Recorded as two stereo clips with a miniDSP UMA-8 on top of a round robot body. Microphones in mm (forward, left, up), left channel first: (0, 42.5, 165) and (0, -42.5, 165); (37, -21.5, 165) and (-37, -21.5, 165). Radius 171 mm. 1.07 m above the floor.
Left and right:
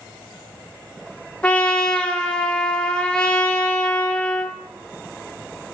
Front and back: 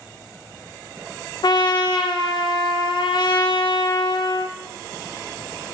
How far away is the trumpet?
About 1.2 m.